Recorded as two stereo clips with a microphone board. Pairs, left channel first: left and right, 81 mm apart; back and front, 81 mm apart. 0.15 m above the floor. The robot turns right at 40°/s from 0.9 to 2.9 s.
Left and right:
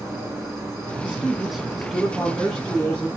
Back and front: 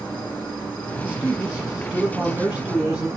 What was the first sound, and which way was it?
An insect, 120° right.